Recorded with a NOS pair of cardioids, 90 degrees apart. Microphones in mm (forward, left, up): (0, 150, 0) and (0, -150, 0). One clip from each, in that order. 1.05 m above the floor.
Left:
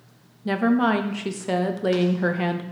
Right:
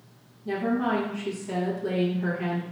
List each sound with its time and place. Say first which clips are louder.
0.5 s a woman speaking: left 5 dB; 60° left, 0.6 m